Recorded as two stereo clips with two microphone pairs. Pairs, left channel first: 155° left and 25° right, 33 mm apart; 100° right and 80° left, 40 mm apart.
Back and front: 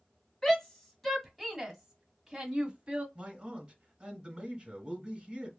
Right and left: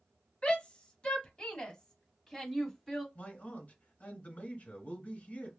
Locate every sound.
0.4 s a shout: 140° right, 1.5 m; by 3.0 s 20° right, 1.4 m
3.1 s a man speaking: 75° right, 2.0 m